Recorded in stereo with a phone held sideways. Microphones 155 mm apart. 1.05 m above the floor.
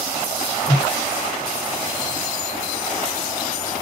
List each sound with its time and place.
0.7 s a whoosh: 70° left (ahead or behind), 1.6 m